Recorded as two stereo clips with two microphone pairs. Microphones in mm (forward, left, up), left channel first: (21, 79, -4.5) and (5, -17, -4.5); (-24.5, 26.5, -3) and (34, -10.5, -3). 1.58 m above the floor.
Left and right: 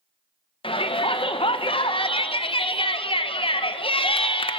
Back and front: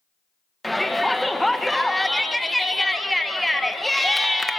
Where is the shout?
60° left, 1.5 m.